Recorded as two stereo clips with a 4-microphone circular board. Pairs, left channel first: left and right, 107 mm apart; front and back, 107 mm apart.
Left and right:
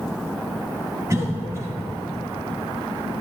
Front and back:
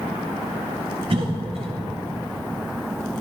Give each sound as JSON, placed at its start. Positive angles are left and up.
{"t": 1.1, "sound": "a cough", "azimuth_deg": -150, "distance_m": 3.5}